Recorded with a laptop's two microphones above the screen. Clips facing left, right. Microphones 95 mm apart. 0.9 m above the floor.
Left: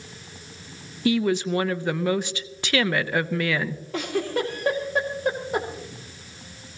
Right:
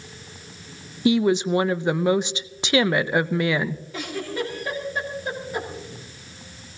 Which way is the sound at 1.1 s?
20° right (ahead or behind).